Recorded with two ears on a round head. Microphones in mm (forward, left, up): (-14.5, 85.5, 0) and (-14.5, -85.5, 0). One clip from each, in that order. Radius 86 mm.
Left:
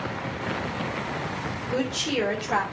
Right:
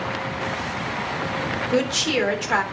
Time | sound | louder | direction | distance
1.7 | a woman speaking | right 5 dB | 65° right (ahead or behind) | 3 m